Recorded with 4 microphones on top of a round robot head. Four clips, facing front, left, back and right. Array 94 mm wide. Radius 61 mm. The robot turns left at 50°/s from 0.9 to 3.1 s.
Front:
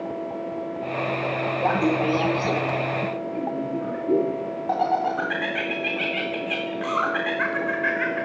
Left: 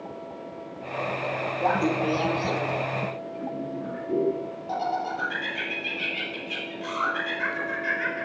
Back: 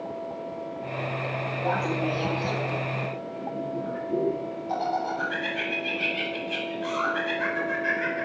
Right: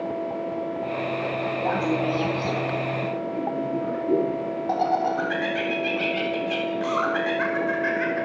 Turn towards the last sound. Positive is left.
turn(degrees=-30)